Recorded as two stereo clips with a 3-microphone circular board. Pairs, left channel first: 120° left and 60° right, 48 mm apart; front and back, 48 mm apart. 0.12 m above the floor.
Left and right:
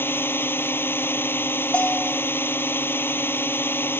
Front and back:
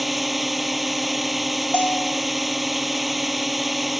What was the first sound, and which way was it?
A drone, 90° left.